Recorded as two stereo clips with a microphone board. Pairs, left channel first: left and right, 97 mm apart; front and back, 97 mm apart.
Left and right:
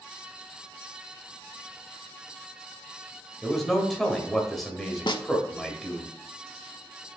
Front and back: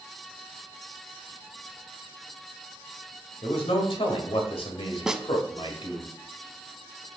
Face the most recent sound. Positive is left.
turn(degrees=95)